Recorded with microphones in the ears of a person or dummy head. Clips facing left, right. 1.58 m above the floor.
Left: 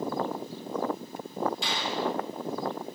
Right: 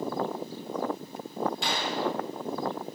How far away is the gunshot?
About 3.5 m.